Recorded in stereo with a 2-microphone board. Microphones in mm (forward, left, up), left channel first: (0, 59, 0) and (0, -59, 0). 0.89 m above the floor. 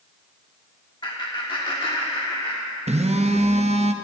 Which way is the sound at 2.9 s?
70° right (ahead or behind).